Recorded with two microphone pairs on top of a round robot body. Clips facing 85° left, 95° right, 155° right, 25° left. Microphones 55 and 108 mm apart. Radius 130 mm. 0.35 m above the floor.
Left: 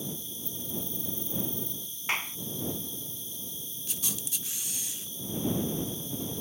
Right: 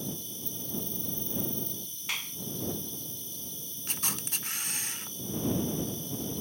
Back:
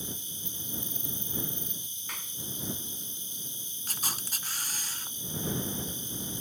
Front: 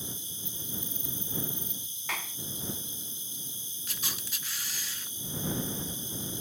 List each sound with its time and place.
0.0 s an insect: 130° right
2.1 s a clap: 25° left
3.9 s a camera shutter: 130° right